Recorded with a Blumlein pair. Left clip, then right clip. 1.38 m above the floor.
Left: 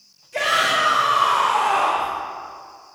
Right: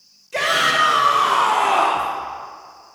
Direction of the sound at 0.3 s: 65° right.